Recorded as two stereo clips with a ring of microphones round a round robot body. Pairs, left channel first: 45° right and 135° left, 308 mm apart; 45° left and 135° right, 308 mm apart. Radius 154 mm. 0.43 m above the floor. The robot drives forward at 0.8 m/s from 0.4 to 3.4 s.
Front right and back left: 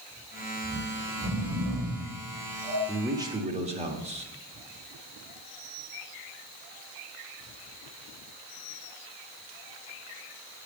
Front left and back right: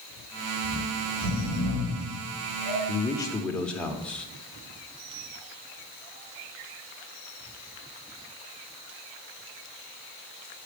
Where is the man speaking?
45° left, 0.9 m; by 4.3 s 125° left, 0.9 m.